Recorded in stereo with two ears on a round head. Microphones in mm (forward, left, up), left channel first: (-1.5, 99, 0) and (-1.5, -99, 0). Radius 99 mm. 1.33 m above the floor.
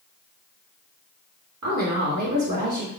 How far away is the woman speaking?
About 2.5 m.